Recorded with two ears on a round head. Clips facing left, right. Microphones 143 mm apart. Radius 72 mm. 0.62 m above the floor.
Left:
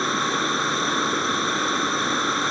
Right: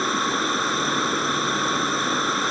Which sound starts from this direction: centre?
Running water, at 0.0 s.